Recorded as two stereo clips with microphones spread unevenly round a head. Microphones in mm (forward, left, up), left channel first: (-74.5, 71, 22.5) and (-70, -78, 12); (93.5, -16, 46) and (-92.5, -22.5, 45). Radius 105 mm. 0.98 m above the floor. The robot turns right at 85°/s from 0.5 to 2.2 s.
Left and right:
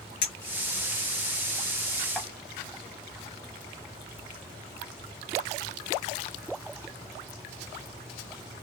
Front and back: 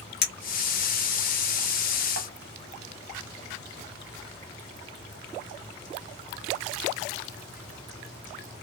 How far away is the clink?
About 0.8 m.